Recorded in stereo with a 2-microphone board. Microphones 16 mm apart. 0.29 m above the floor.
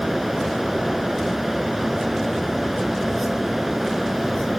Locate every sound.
Only background noise.